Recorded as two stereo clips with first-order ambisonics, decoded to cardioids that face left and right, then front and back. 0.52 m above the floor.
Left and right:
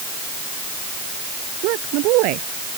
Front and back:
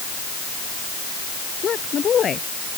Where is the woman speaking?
65° right.